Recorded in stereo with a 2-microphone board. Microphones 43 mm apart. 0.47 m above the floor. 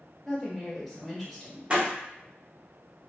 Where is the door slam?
30° right (ahead or behind), 0.7 m.